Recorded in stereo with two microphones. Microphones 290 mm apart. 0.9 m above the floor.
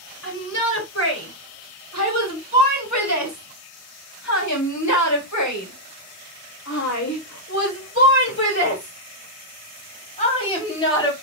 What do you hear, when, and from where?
0.2 s a shout: 50° left (ahead or behind), 4.5 m; by 11.1 s 15° left (ahead or behind), 3 m